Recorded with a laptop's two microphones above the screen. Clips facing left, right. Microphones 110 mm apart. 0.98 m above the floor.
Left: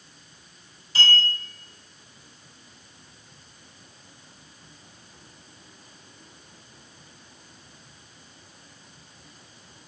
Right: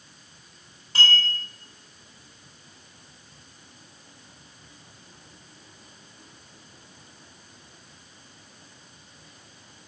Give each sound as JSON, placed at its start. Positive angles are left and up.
{"t": 0.9, "sound": "a clink", "side_deg": -60, "distance_m": 1.9}